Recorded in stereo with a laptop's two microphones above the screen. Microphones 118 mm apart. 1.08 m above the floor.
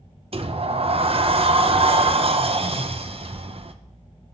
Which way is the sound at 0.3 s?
55° right (ahead or behind).